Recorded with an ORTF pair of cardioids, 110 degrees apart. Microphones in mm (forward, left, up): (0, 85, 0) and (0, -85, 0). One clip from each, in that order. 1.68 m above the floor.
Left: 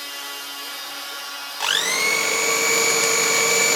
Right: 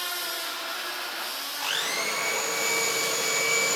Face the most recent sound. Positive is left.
turn(degrees=50)